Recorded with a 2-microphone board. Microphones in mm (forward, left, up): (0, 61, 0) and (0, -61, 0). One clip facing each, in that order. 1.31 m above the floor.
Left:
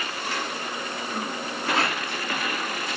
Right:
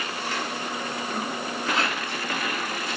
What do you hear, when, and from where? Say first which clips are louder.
1.7 s a rattle: left 2 dB; 30° left (ahead or behind), 2.5 m